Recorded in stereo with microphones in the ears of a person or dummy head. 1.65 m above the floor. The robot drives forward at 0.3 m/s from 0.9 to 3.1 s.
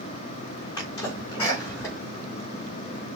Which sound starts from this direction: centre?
A sneeze, at 0.8 s.